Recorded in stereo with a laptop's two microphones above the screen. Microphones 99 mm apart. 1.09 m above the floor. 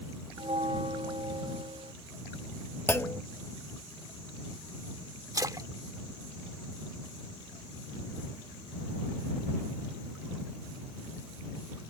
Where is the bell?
70° right (ahead or behind).